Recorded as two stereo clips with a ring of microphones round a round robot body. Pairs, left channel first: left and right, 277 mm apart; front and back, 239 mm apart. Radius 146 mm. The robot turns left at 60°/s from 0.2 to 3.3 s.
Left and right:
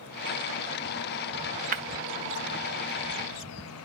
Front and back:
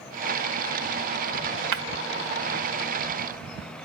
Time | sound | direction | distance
1.7 | breaking glass | 150° right | 0.8 m